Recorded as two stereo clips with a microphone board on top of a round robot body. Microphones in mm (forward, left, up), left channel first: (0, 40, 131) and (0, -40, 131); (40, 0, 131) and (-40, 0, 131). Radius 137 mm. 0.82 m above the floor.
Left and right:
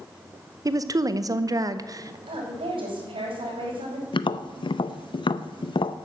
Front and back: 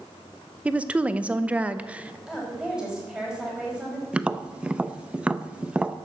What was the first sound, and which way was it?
A woman speaking, 110° right.